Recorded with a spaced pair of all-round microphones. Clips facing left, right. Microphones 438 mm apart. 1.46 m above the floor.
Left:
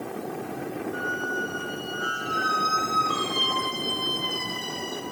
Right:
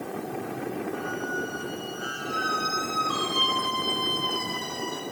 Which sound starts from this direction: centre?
A squeak, at 0.9 s.